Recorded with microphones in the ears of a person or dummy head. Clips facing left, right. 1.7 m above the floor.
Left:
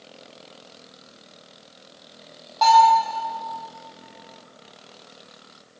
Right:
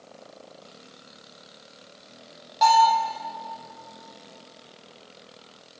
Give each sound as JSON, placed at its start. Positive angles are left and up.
{"t": 2.6, "sound": "a bell", "side_deg": -10, "distance_m": 1.6}